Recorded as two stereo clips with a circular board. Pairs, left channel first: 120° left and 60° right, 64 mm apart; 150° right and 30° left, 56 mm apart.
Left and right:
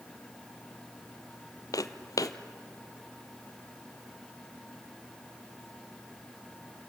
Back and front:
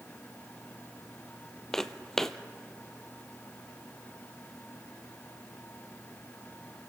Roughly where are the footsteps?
Behind left.